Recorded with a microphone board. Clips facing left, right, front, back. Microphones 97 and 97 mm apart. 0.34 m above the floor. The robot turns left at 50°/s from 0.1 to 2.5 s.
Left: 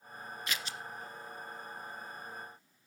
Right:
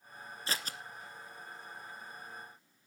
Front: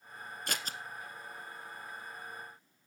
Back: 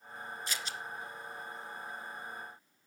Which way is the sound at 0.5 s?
35° right.